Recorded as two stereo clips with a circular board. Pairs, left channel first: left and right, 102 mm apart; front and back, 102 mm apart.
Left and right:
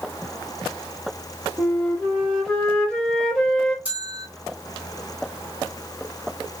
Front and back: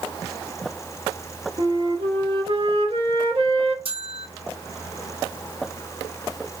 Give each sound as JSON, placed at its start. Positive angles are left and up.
{"t": 1.6, "sound": "a flute", "azimuth_deg": 170, "distance_m": 0.9}
{"t": 3.9, "sound": "a bell", "azimuth_deg": -165, "distance_m": 1.5}